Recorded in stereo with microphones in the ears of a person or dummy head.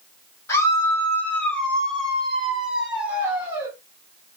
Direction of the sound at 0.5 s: 15° left (ahead or behind).